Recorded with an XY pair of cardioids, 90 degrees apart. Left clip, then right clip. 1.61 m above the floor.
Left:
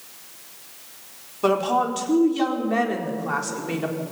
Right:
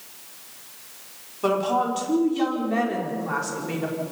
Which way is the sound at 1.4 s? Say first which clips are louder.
Left 2 dB; 25° left.